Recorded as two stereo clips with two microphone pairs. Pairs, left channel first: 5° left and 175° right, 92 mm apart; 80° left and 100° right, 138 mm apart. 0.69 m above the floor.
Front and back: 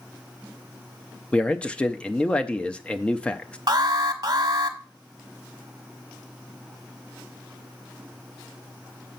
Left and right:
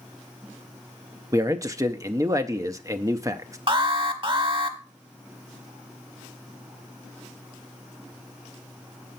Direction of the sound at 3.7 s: 145° right.